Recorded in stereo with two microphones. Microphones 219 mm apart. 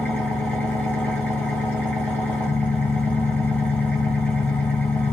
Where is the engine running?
10° left (ahead or behind), 1.2 m.